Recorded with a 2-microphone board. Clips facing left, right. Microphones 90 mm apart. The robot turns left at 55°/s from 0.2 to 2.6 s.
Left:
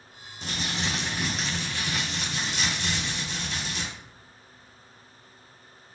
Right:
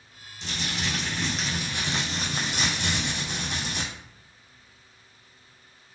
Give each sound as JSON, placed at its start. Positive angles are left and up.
{"t": 0.4, "sound": "crumpling", "azimuth_deg": 55, "distance_m": 2.5}